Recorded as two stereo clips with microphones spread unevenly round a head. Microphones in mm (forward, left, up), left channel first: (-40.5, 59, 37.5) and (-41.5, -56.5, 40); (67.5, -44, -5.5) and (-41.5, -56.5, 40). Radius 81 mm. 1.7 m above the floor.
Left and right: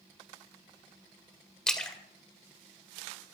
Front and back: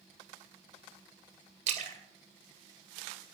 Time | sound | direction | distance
1.7 | a splash | 175° left | 2 m